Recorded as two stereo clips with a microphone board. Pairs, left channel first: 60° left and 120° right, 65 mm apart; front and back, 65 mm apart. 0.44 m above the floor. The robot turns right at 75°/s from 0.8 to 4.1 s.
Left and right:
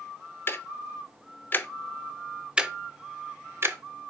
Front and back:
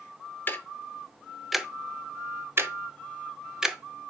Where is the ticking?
40° left, 0.6 m; by 3.8 s 95° right, 0.6 m.